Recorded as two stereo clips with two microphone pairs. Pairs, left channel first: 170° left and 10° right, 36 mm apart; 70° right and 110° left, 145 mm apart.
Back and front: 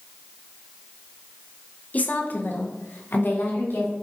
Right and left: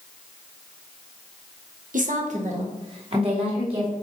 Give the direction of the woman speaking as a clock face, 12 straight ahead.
8 o'clock.